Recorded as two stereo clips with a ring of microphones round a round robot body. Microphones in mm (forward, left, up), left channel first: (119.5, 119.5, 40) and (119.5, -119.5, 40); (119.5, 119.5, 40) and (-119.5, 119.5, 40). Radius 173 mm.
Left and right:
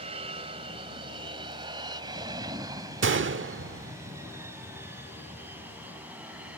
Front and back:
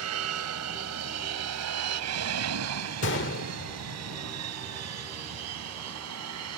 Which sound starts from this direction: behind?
An aircraft, at 0.0 s.